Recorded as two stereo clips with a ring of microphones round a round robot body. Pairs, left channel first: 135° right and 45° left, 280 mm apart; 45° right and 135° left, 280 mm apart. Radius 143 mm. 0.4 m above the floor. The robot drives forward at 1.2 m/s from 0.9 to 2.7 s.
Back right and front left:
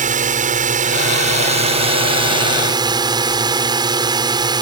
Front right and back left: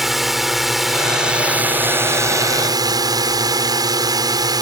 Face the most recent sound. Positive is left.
turn(degrees=85)